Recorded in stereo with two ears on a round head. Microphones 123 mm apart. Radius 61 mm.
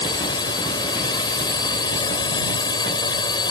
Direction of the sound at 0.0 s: 30° left (ahead or behind).